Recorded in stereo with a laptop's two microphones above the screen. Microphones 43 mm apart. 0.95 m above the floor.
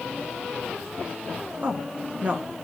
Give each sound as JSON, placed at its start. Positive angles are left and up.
{"t": 1.6, "sound": "a woman speaking", "side_deg": -40, "distance_m": 1.8}